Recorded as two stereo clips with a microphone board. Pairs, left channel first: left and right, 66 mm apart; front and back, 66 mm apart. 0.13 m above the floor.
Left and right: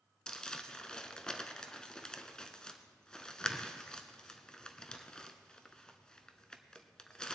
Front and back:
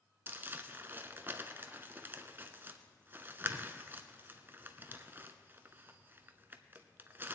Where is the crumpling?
160° left, 0.8 m.